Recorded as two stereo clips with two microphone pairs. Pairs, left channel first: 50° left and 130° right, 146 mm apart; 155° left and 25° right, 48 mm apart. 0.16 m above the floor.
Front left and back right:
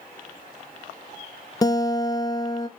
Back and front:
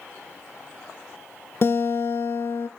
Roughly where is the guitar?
Behind left.